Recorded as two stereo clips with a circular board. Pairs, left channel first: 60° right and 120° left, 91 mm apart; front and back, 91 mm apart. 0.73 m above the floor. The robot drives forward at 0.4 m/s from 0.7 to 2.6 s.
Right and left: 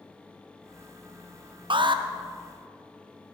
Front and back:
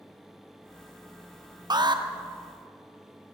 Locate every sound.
1.7 s an alarm: 140° left, 0.7 m; by 2.0 s 150° left, 0.8 m